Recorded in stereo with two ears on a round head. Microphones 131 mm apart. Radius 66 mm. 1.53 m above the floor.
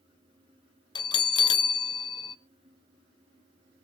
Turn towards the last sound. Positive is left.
turn(degrees=30)  # may be behind; listen again after turning